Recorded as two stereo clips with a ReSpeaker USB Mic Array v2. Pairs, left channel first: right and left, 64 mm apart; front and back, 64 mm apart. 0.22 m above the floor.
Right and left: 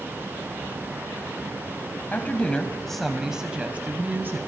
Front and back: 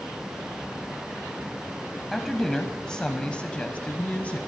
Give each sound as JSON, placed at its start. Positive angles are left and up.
{"t": 2.1, "sound": "a woman speaking", "azimuth_deg": -85, "distance_m": 1.0}